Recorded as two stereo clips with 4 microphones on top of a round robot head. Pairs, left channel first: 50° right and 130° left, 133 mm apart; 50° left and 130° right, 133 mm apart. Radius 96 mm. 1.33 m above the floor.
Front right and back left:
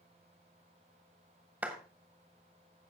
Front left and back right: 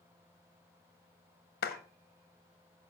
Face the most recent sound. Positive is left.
turn(degrees=50)